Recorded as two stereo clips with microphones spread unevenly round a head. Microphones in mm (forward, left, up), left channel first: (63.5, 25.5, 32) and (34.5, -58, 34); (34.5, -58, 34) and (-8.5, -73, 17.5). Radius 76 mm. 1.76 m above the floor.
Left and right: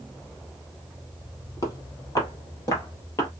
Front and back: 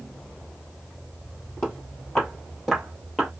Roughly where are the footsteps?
Ahead left.